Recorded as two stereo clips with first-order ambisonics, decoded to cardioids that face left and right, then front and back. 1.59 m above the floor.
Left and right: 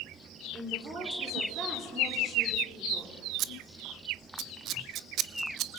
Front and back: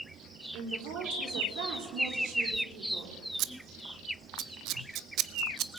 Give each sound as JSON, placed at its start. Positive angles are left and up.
{"t": 0.5, "sound": "a woman speaking", "azimuth_deg": -155, "distance_m": 4.0}
{"t": 3.4, "sound": "scissors", "azimuth_deg": -140, "distance_m": 0.6}